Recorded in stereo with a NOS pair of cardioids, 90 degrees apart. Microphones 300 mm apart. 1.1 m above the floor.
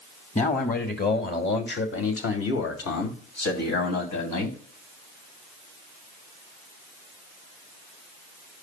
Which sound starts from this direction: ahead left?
A man speaking, at 0.3 s.